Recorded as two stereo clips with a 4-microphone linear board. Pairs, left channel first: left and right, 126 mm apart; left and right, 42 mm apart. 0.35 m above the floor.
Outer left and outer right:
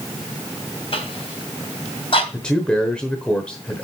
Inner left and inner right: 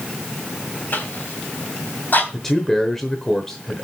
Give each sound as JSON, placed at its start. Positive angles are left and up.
{"t": 0.9, "sound": "a cough", "side_deg": 45, "distance_m": 3.0}
{"t": 2.3, "sound": "a man speaking", "side_deg": 10, "distance_m": 0.9}